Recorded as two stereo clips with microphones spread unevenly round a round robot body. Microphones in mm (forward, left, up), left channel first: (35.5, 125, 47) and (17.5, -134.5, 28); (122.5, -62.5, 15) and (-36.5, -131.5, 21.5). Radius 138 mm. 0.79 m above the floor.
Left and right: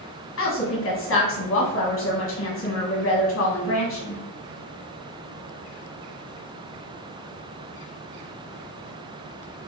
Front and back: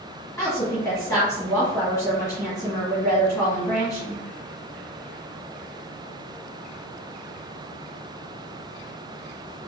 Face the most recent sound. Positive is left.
turn(degrees=90)